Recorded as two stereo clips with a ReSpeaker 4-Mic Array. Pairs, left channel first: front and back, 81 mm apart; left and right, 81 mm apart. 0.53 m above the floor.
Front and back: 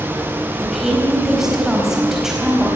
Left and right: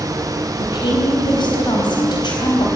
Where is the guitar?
No guitar in this recording.